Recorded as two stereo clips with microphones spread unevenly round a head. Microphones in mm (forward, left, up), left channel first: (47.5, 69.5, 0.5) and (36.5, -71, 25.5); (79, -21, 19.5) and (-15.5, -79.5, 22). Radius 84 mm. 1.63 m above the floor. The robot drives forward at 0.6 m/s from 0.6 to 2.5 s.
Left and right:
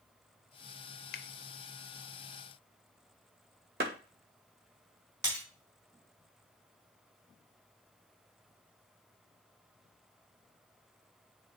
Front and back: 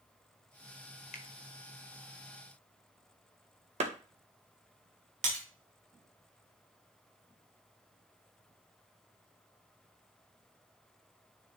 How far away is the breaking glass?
About 4.5 m.